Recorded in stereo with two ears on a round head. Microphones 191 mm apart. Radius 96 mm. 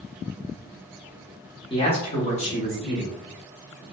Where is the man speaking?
25° left (ahead or behind), 0.8 m; by 3.1 s 30° left (ahead or behind), 1.6 m.